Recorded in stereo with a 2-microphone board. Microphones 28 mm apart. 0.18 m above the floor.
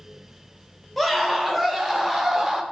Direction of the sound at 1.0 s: Centre (ahead or behind).